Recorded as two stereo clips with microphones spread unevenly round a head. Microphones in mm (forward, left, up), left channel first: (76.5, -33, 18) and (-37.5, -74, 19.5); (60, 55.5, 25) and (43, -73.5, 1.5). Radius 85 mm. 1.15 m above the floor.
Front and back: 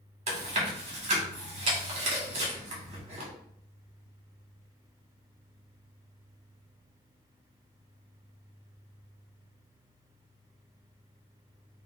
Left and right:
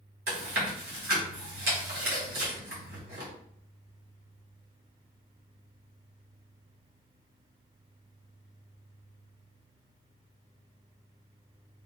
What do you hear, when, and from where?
0.3 s chewing: 130° right, 1.4 m